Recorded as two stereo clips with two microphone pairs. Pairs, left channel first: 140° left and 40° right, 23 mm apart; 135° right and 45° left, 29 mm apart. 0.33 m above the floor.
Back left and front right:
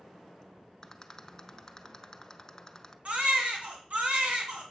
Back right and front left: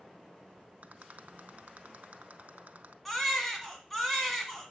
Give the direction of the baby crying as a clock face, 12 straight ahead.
2 o'clock.